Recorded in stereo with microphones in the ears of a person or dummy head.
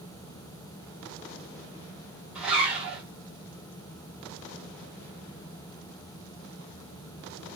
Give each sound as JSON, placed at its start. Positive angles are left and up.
{"t": 2.4, "sound": "a zipper", "side_deg": -5, "distance_m": 1.2}